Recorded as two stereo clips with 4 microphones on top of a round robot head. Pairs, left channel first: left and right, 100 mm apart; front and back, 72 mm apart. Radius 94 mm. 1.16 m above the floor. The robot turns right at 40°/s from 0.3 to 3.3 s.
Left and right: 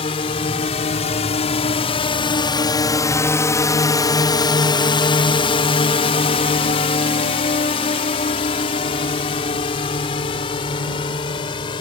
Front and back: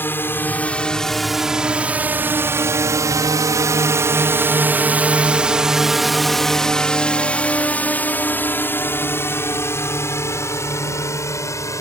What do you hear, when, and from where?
0.0 s a drone: 60° left; by 11.8 s 45° left